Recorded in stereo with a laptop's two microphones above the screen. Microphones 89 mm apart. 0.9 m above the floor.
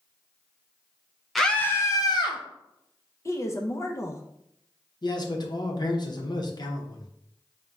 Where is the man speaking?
55° left (ahead or behind), 0.8 m.